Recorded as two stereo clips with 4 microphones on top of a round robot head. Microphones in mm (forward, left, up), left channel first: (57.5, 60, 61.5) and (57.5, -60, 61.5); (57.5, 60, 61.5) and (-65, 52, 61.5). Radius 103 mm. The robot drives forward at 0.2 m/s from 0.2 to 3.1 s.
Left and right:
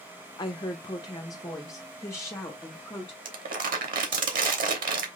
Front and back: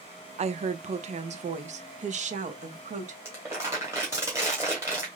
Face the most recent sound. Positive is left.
turn(degrees=-100)